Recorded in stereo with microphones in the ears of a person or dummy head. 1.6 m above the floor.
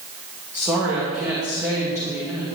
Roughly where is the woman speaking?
Centre.